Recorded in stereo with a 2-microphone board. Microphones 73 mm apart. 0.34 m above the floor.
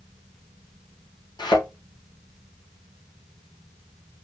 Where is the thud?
75° left (ahead or behind), 3.5 m.